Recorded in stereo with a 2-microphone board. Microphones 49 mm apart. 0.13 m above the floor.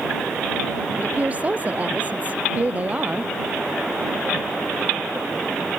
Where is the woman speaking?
30° right (ahead or behind).